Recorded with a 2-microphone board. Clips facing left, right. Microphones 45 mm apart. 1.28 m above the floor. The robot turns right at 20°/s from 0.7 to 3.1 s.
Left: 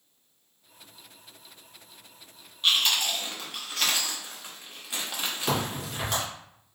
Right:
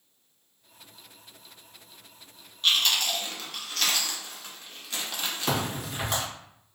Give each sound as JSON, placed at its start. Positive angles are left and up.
{"t": 2.6, "sound": "chewing", "side_deg": 5, "distance_m": 0.6}
{"t": 5.5, "sound": "a crack", "side_deg": -5, "distance_m": 1.5}